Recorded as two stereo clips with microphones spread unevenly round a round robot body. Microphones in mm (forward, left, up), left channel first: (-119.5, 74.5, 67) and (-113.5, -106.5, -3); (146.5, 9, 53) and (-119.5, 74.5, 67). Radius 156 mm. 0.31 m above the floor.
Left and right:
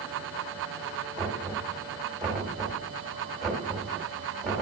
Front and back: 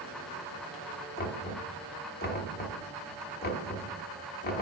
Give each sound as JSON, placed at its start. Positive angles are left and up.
{"t": 1.2, "sound": "knocking", "azimuth_deg": -25, "distance_m": 1.3}